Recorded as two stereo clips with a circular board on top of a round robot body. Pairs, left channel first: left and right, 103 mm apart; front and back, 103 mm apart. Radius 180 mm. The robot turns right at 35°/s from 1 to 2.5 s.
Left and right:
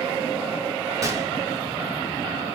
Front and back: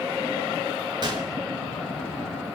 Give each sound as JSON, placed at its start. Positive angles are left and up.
{"t": 1.0, "sound": "a gunshot", "azimuth_deg": -145, "distance_m": 1.6}